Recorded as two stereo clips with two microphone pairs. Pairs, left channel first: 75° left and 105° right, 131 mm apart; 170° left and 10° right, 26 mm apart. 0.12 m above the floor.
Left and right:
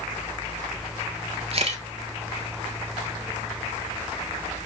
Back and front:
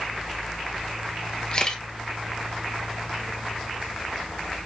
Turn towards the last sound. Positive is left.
turn(degrees=-140)